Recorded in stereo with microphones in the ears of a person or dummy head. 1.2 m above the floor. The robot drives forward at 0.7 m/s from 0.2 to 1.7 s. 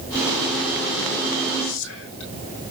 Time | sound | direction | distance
1.6 | whispering | 70° left (ahead or behind) | 3.5 m